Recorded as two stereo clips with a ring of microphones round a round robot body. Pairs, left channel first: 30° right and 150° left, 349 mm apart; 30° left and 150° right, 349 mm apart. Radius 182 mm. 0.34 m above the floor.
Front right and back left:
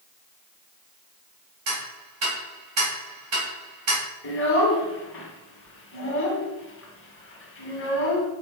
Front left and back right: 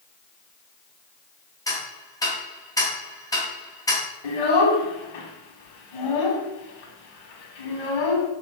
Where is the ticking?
110° left, 3 m.